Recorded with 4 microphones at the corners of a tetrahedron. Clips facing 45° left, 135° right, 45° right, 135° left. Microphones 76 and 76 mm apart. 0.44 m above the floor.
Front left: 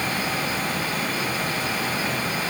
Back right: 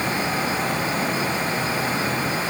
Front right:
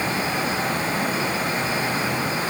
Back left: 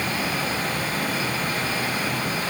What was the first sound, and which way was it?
Only background noise.